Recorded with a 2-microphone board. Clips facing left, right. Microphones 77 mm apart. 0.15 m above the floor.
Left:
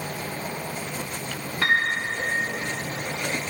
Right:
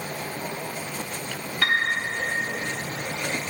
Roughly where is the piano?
Left.